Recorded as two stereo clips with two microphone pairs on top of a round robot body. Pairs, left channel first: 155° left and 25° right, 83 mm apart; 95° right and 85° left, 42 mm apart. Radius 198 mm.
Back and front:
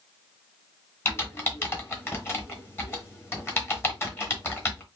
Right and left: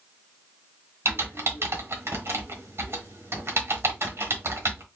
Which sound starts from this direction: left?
Typing on a keyboard, at 1.1 s.